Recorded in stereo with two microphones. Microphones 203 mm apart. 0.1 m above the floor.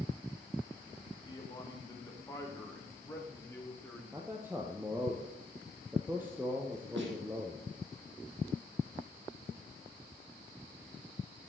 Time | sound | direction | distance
1.2 | a man speaking | 25° left (ahead or behind) | 6 m
4.1 | a man speaking | 10° right (ahead or behind) | 2.5 m
7.0 | a snare drum | 65° right (ahead or behind) | 4.5 m